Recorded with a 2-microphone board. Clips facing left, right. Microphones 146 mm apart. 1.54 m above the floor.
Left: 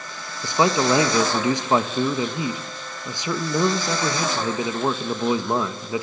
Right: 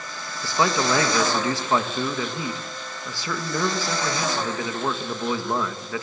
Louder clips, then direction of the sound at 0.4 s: Left 3 dB; 20° left (ahead or behind).